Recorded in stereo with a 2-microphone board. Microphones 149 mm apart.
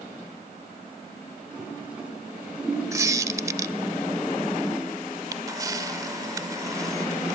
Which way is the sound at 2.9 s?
20° right (ahead or behind).